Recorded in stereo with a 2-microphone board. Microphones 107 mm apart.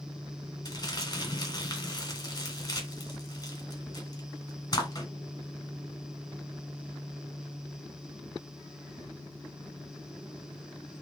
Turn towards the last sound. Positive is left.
turn(degrees=40)  # may be behind; listen again after turning